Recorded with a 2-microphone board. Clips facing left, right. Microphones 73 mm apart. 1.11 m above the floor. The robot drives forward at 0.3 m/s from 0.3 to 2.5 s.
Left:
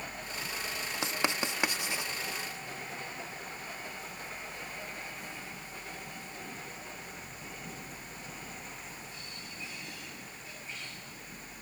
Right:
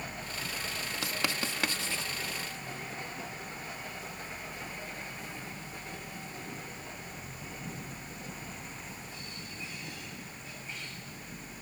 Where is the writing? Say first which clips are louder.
Left 3 dB; 20° left (ahead or behind); by 2.1 s 15° left (ahead or behind).